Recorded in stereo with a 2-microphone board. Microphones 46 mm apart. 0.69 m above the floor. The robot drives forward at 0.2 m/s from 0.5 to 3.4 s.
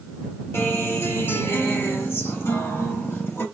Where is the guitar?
60° left (ahead or behind), 2.5 m; by 3.5 s 55° left (ahead or behind), 3 m.